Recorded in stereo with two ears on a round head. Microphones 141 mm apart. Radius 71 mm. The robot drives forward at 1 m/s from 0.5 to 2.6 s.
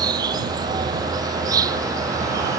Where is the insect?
30° right (ahead or behind); by 2.6 s 20° right (ahead or behind).